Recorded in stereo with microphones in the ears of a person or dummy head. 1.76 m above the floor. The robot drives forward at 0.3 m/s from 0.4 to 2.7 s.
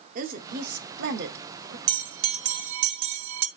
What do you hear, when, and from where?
0.1 s a woman speaking: 50° right (ahead or behind), 1.4 m; by 1.8 s 65° right (ahead or behind), 1.1 m
1.9 s a bell: 85° right, 0.8 m; by 3.5 s 75° right (ahead or behind), 0.9 m